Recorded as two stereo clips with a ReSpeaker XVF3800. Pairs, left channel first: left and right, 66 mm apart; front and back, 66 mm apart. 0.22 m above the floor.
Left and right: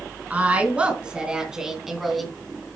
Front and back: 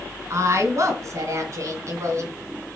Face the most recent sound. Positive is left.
turn(degrees=175)